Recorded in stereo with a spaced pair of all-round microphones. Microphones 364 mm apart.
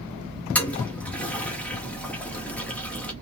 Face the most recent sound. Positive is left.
turn(degrees=5)  # may be behind; listen again after turning